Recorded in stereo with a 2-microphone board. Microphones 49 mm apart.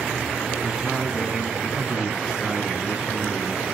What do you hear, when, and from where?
0.6 s a man speaking: 10° right (ahead or behind), 1.4 m